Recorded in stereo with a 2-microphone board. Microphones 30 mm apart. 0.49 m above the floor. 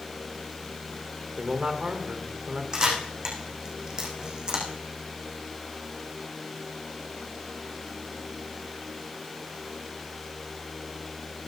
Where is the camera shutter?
30° right (ahead or behind), 5.5 m.